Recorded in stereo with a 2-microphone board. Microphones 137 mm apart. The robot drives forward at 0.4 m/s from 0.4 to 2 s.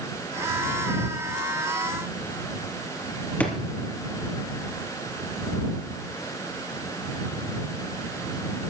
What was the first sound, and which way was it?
A drawer, 10° left (ahead or behind).